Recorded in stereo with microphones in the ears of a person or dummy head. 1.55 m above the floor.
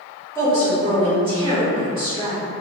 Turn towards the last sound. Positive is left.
turn(degrees=-25)  # may be behind; listen again after turning